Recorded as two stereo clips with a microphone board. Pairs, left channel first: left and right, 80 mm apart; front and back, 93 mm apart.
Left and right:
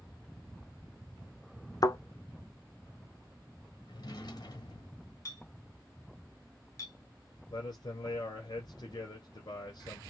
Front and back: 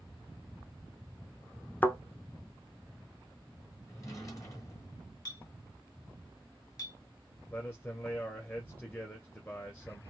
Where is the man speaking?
65° left, 2 m.